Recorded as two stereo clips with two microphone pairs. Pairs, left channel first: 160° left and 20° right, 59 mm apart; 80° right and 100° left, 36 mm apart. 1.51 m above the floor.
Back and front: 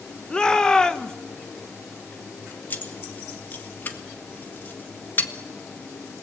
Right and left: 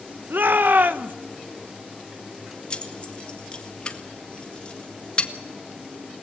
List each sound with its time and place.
0.3 s a shout: 85° left, 1.2 m
2.7 s keys jangling: 140° right, 1.7 m